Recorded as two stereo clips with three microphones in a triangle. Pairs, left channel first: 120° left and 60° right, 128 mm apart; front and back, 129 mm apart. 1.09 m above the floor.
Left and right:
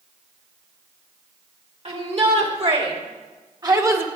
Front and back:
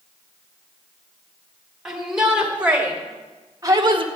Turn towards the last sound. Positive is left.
turn(degrees=-135)